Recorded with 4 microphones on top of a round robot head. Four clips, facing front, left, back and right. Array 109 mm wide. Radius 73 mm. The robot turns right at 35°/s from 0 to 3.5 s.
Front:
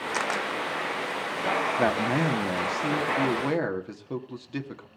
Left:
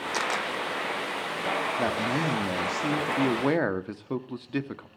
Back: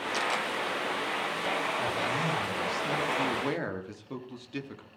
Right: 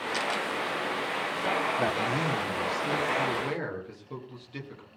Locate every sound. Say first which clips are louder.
0.1 s a camera shutter: left 2 dB, front 2 dB; 30° left, 1.4 m; by 0.5 s 40° left, 1.4 m
1.8 s a man speaking: left 1 dB, front 6 dB; 10° left, 2 m; by 4.9 s 70° left, 2 m